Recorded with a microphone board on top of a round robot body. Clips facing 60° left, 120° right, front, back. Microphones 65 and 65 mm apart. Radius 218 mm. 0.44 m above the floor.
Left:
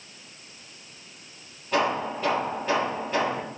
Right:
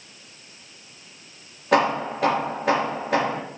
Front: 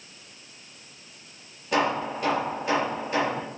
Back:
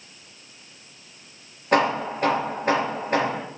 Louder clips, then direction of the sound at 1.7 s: Right 5 dB, back 4 dB; 135° right.